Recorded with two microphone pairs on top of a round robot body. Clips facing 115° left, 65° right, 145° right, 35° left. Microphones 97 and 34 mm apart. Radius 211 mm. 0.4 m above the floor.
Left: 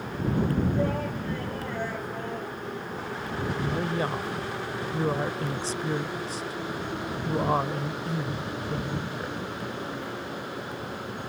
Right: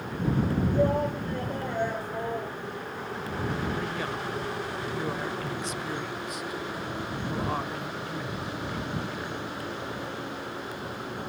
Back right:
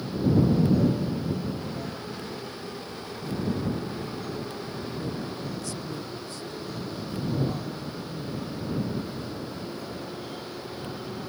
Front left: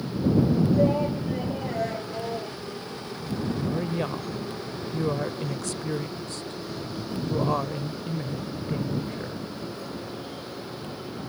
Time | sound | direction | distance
0.7 | a shout | 5° left | ?
3.6 | a woman speaking | 60° left | ?